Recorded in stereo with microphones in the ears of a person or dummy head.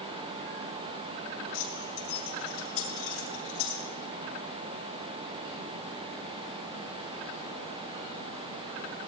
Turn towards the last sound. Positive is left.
turn(degrees=85)